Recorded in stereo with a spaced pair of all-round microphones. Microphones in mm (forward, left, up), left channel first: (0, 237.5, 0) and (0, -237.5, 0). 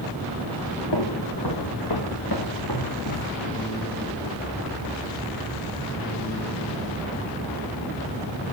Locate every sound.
0.9 s footsteps: 55° left (ahead or behind), 4.5 m; by 3.4 s 40° left (ahead or behind), 5.5 m